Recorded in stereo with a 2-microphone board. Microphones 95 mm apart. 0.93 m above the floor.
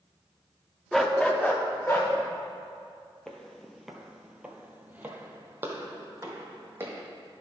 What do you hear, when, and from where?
0.9 s a dog barking: centre (ahead or behind), 0.6 m; by 2.1 s 25° left (ahead or behind), 1.5 m
3.3 s footsteps: 5° left (ahead or behind), 1.0 m; by 7.0 s 25° right (ahead or behind), 1.9 m